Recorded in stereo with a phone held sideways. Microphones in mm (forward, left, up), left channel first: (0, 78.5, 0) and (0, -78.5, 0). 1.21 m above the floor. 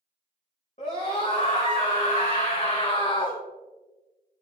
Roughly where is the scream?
Left.